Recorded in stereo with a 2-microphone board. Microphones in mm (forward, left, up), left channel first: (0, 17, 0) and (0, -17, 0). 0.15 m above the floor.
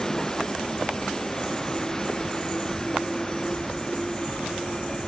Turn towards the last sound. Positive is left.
turn(degrees=15)  # may be behind; listen again after turning